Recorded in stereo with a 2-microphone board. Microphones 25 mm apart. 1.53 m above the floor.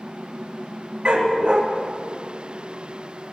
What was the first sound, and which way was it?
A dog barking, 40° right (ahead or behind).